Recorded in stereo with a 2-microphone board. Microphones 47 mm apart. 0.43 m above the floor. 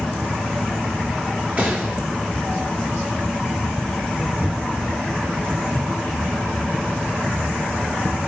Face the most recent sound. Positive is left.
turn(degrees=-30)  # may be behind; listen again after turning